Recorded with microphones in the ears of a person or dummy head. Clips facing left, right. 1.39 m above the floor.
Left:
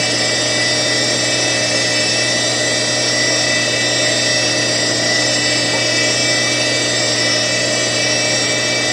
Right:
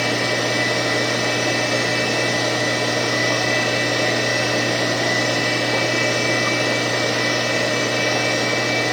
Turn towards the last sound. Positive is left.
turn(degrees=55)  # may be behind; listen again after turning